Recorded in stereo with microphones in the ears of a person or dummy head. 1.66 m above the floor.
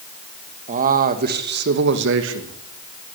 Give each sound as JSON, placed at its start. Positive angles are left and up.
{"t": 0.7, "sound": "a man speaking", "side_deg": -35, "distance_m": 2.0}